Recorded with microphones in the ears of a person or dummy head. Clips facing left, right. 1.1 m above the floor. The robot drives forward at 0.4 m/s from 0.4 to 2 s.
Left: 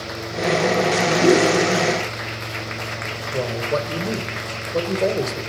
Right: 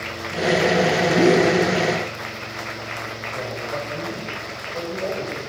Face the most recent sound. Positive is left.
turn(degrees=65)  # may be behind; listen again after turning